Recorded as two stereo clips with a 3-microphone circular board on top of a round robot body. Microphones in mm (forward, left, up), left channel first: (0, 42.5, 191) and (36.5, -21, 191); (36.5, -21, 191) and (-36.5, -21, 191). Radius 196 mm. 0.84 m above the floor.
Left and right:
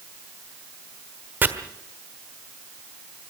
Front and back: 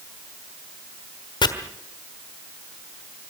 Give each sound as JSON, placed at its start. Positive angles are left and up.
{"t": 1.4, "sound": "chopping", "azimuth_deg": 5, "distance_m": 1.4}